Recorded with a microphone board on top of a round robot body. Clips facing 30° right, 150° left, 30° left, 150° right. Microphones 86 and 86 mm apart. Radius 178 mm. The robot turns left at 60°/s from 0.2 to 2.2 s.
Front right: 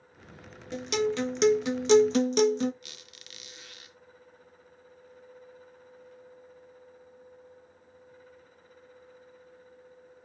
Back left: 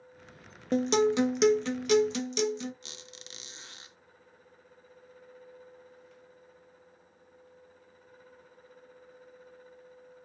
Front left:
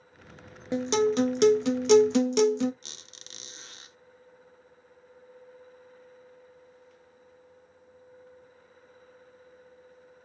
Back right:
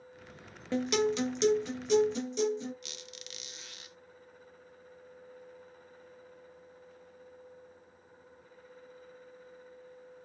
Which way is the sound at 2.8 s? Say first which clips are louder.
Back left 3 dB, back right 4 dB; 85° left.